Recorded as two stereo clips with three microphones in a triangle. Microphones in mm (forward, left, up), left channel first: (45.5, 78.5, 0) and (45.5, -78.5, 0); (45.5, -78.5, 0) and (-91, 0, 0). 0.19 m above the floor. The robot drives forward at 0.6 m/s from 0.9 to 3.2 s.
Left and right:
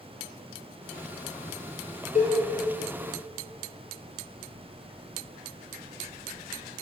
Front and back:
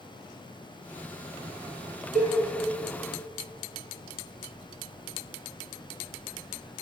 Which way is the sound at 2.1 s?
125° left.